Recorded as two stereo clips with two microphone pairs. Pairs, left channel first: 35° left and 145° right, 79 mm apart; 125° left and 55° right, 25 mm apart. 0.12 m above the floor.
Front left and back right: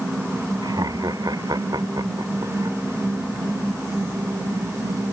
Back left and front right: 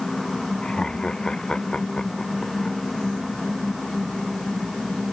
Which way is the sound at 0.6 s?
175° right.